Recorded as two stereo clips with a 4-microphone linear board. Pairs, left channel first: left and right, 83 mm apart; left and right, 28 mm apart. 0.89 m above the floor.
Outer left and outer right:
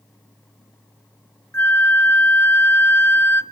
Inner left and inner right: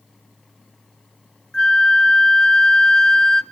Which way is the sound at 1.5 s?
30° left (ahead or behind).